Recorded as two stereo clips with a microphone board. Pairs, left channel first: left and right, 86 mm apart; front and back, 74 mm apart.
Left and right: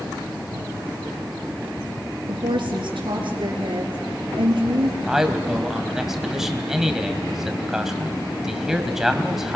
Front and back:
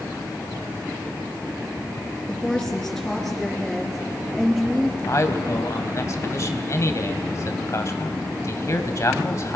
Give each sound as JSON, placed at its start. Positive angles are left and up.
{"t": 2.3, "sound": "a woman speaking", "azimuth_deg": -85, "distance_m": 4.5}
{"t": 5.1, "sound": "a man speaking", "azimuth_deg": -5, "distance_m": 2.0}